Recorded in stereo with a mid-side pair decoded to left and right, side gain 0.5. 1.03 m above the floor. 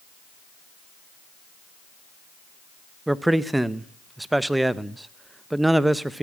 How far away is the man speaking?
About 0.7 m.